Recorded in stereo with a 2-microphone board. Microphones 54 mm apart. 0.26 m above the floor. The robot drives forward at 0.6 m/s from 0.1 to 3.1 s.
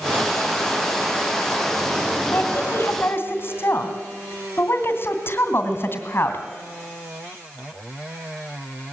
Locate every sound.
2.3 s a woman speaking: 40° left (ahead or behind), 2.5 m; by 6.4 s 45° left (ahead or behind), 2.5 m